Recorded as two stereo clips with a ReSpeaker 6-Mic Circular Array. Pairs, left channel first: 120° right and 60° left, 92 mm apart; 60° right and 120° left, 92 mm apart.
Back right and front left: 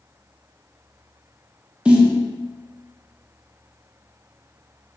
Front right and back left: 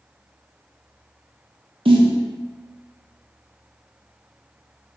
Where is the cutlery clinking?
I don't hear cutlery clinking.